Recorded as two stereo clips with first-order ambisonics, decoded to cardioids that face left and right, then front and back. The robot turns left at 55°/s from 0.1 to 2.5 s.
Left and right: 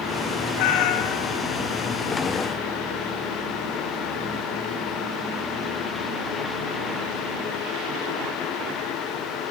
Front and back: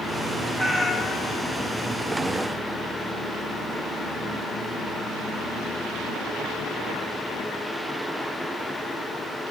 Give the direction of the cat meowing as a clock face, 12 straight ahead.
9 o'clock.